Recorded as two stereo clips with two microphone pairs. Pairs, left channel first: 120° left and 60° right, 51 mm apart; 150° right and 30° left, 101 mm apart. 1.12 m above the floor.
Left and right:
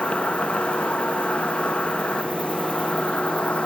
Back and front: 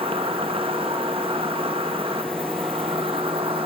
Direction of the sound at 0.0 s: 55° left.